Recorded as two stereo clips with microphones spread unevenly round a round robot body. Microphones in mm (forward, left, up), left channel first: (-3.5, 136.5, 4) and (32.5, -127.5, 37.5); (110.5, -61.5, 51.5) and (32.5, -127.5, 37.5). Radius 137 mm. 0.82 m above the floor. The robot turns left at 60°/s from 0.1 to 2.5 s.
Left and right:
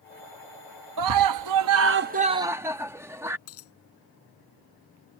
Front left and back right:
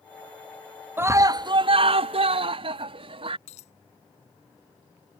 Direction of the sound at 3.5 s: 60° left.